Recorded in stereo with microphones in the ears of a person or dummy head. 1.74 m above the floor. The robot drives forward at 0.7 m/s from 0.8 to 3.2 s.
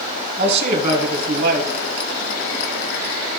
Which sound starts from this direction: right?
A man speaking, at 0.4 s.